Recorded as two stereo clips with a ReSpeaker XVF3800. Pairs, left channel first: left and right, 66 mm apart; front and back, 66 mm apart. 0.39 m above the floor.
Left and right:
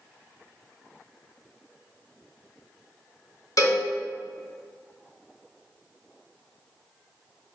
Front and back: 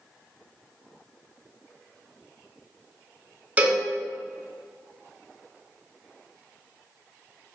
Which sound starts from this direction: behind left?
A cowbell, at 3.6 s.